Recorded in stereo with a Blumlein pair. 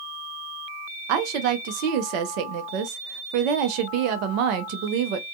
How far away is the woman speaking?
About 0.6 m.